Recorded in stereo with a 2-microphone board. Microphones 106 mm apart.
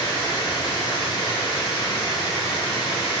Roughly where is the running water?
Left.